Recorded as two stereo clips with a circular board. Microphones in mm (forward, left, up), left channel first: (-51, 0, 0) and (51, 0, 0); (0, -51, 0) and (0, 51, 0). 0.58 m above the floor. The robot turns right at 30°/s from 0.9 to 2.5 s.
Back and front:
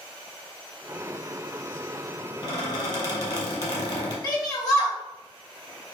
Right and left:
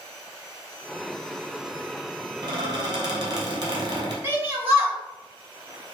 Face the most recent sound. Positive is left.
turn(degrees=150)